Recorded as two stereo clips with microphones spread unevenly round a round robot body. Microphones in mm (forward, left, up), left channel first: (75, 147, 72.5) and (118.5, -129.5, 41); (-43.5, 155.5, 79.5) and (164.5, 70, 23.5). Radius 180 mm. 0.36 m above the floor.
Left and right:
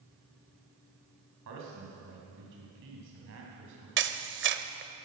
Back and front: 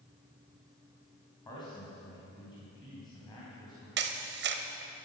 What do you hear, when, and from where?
1.4 s a man speaking: 125° right, 3 m
4.0 s a camera shutter: 40° right, 0.8 m